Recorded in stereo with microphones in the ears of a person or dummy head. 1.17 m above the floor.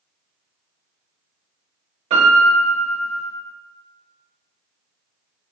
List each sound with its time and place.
2.1 s a piano: 30° right (ahead or behind), 0.9 m